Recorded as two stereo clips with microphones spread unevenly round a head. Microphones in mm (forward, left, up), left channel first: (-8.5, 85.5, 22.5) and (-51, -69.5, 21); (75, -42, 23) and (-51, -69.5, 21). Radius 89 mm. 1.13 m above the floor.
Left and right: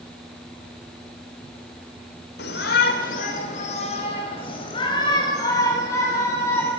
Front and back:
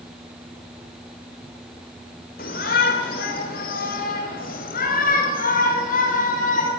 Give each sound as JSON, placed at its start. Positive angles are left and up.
{"t": 2.4, "sound": "a shout", "azimuth_deg": 40, "distance_m": 3.5}